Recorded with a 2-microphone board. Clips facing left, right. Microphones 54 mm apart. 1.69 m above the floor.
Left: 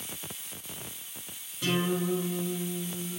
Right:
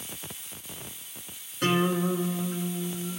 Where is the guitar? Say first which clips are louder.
Right 4 dB; 60° right (ahead or behind), 7 m.